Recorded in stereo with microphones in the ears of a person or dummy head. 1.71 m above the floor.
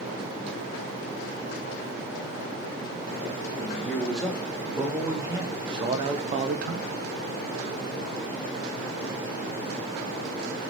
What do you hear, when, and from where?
3.6 s a man speaking: 5° left (ahead or behind), 2.5 m; by 6.9 s 60° right (ahead or behind), 1.1 m